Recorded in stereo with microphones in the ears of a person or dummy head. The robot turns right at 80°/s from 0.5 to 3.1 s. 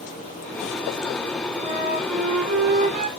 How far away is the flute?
About 0.8 m.